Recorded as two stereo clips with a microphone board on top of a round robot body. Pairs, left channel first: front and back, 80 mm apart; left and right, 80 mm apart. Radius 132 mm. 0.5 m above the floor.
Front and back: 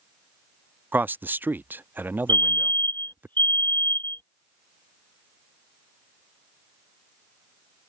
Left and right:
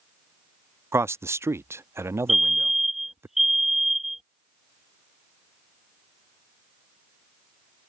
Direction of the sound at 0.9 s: 125° right.